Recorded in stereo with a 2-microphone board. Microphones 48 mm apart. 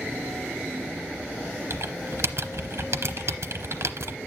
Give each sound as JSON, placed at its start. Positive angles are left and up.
{"t": 1.7, "sound": "typing on a keyboard", "side_deg": -65, "distance_m": 0.8}